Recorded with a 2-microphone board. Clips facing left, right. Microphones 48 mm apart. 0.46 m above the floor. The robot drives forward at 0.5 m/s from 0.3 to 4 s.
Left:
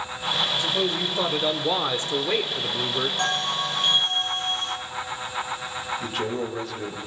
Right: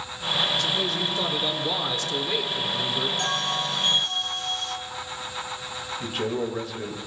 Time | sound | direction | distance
0.5 | a man speaking | 20° left (ahead or behind) | 1.6 m
3.2 | a bell | 35° left (ahead or behind) | 2 m
6.0 | a man speaking | 5° right (ahead or behind) | 2 m